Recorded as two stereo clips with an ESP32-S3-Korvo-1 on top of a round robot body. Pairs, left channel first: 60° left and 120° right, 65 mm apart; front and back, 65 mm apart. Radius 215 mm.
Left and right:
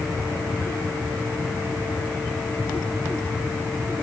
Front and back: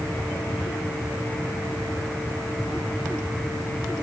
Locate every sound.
Only background noise.